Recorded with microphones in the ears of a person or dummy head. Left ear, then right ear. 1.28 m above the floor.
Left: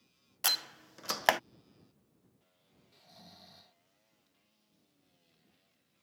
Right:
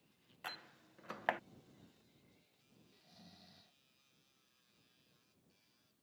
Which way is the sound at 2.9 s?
30° left (ahead or behind).